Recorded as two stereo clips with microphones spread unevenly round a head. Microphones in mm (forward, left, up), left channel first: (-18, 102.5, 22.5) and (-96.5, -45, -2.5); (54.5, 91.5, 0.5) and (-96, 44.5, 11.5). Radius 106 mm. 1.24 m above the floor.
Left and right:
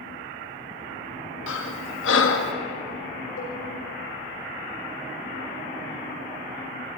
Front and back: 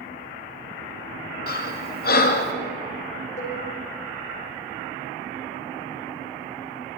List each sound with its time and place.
1.5 s breathing: 35° left, 2.5 m
3.4 s a cowbell: 60° left, 6.5 m